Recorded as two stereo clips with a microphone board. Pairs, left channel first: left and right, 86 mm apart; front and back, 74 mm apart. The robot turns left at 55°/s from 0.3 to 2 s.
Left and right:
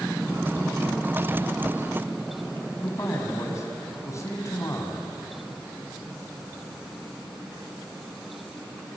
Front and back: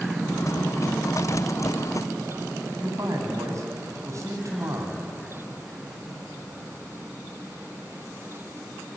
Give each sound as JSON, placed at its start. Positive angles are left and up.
{"t": 2.8, "sound": "a man speaking", "azimuth_deg": 140, "distance_m": 4.5}